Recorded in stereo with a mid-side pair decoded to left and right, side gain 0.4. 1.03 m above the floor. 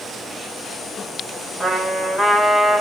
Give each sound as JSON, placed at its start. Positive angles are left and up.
{"t": 1.6, "sound": "a trumpet", "azimuth_deg": 0, "distance_m": 2.5}